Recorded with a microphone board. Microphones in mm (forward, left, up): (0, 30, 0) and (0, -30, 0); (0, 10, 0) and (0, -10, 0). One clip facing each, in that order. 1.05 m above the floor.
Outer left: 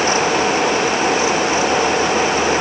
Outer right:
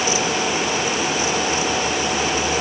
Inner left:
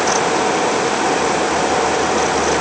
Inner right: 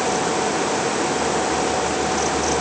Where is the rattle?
No rattle in this recording.